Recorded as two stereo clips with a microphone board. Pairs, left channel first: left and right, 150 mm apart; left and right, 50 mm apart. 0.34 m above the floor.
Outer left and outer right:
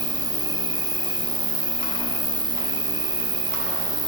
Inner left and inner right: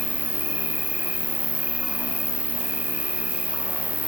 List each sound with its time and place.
0.0 s an insect: 30° right (ahead or behind), 0.8 m